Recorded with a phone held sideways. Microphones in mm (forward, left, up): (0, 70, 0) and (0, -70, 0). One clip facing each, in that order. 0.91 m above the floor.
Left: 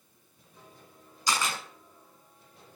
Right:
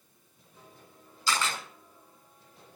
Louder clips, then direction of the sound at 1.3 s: Even; 15° left (ahead or behind).